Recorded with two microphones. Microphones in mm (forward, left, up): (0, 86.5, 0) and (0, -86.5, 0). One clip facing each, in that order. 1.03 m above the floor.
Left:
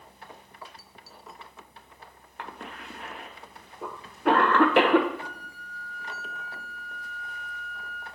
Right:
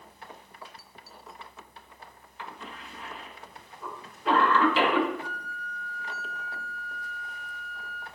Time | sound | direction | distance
2.4 | a cough | 60° left (ahead or behind) | 1.1 m
5.2 | a flute | 70° left (ahead or behind) | 4.5 m